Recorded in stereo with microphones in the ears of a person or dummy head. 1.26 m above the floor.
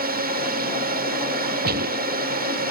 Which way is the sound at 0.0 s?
40° right (ahead or behind).